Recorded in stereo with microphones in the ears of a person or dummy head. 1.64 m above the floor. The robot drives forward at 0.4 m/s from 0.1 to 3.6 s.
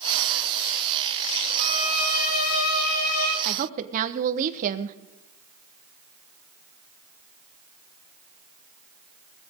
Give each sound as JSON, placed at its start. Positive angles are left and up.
{"t": 1.6, "sound": "a violin", "side_deg": 45, "distance_m": 4.5}
{"t": 3.5, "sound": "a woman speaking", "side_deg": -45, "distance_m": 1.0}